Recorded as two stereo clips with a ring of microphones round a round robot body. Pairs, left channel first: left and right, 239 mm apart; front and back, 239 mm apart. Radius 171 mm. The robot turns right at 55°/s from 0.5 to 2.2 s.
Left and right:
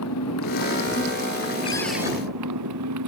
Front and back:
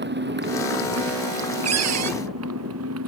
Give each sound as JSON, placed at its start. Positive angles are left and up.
{"t": 0.0, "sound": "a motorcycle", "azimuth_deg": 135}
{"t": 1.6, "sound": "a cupboard door", "azimuth_deg": 165}